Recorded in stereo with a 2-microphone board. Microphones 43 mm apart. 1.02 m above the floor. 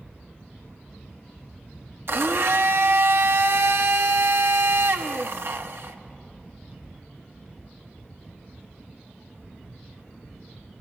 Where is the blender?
60° right (ahead or behind), 0.9 m.